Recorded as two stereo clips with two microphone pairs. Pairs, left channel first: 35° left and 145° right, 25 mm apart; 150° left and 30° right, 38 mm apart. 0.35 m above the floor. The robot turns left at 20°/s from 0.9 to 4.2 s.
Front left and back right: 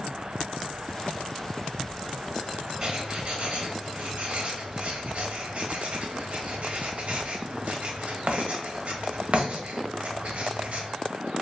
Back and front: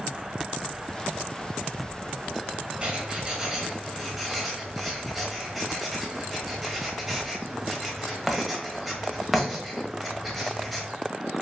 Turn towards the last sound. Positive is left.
turn(degrees=-120)